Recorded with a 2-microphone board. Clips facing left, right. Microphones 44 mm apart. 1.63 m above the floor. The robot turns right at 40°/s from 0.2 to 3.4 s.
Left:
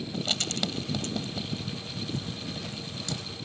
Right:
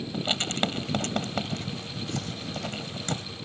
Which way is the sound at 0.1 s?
20° right (ahead or behind).